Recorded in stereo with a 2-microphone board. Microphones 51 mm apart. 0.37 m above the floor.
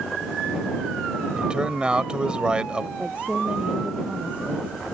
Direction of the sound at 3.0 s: 25° right (ahead or behind).